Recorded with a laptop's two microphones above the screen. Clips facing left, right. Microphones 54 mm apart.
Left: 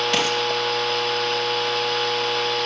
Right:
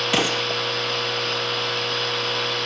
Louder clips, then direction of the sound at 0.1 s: Right 3 dB; 5° right (ahead or behind).